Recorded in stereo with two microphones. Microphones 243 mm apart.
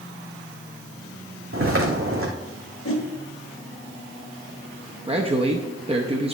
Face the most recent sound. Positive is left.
turn(degrees=-25)  # may be behind; listen again after turning